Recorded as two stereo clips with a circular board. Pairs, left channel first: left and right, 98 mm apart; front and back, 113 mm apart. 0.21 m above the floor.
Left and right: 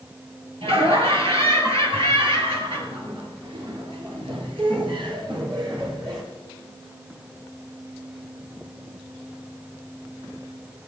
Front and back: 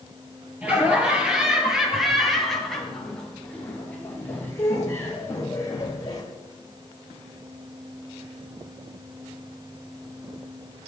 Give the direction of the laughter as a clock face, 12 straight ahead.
3 o'clock.